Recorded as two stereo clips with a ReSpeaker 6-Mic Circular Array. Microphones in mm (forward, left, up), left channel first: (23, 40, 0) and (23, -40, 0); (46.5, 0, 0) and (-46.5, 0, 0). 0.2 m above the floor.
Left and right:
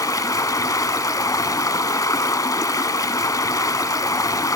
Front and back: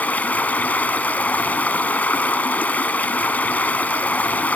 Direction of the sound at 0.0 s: 65° left.